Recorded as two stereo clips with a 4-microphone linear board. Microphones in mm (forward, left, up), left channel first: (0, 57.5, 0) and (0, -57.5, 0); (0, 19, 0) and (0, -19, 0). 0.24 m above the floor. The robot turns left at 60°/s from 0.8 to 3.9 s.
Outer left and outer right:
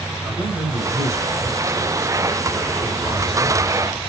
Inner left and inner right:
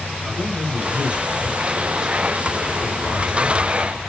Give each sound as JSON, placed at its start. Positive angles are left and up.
{"t": 0.2, "sound": "a man speaking", "side_deg": -15, "distance_m": 1.3}